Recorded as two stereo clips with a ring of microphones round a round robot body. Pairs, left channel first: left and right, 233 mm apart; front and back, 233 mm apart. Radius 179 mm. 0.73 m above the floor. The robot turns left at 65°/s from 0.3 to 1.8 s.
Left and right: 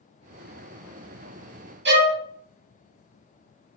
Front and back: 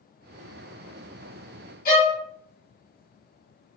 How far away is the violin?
About 1.3 m.